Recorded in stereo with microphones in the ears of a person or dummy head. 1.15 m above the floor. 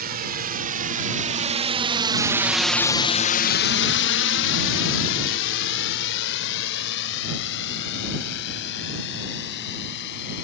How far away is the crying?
No crying in this recording.